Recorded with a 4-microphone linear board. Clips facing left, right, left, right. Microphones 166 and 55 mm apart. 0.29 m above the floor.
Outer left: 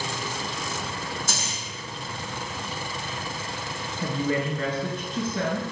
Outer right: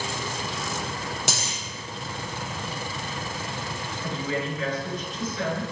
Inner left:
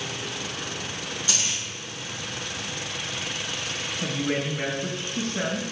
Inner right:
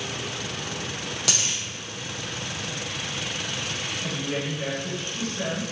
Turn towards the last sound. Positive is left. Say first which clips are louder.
# outer left 4 dB, inner left 4 dB
turn(degrees=60)  # may be behind; listen again after turning